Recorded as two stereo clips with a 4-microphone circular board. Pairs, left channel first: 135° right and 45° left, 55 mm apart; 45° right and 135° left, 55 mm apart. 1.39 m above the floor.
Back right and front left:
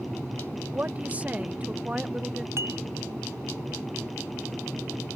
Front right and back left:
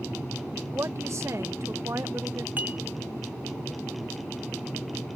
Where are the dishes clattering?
80° left.